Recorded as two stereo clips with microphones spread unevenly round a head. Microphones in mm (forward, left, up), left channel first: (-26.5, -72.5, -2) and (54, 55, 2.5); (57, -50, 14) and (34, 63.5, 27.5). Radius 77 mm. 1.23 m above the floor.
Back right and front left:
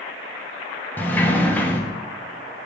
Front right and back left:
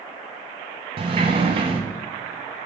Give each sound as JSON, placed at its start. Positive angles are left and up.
{"t": 1.0, "sound": "a sliding door", "azimuth_deg": 160, "distance_m": 0.8}